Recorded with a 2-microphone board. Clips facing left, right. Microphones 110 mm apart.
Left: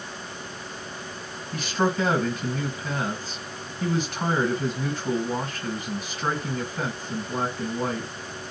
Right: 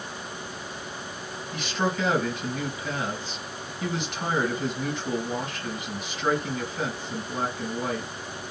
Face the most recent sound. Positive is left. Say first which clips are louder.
# left 3 dB
turn(degrees=35)  # may be behind; listen again after turning